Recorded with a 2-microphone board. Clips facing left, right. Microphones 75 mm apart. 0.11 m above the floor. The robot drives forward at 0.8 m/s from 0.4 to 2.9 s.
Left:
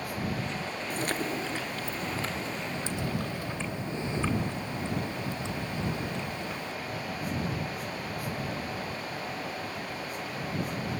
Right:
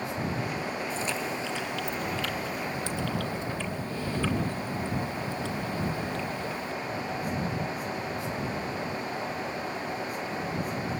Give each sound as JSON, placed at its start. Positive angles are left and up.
{"t": 0.9, "sound": "chewing", "side_deg": 55, "distance_m": 0.9}